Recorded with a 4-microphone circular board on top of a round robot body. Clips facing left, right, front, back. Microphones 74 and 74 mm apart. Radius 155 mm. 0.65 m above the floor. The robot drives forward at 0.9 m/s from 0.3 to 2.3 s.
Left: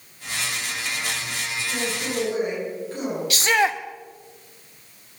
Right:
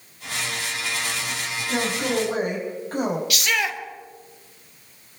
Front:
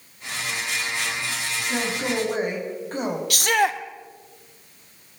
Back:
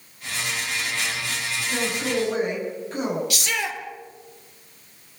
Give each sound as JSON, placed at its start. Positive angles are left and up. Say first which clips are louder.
{"t": 1.7, "sound": "a man speaking", "louder": "right 5 dB, even", "azimuth_deg": -50, "distance_m": 6.5}
{"t": 3.3, "sound": "a shout", "louder": "left 4 dB, front 7 dB", "azimuth_deg": 35, "distance_m": 2.0}